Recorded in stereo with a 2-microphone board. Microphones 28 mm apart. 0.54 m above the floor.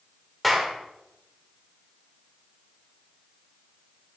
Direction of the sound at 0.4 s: Centre (ahead or behind).